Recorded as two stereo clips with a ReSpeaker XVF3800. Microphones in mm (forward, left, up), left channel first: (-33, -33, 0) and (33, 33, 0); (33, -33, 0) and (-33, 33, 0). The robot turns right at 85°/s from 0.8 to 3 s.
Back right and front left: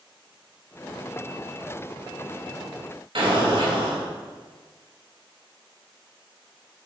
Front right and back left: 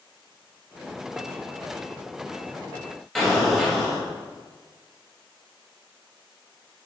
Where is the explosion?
40° left, 2.5 m.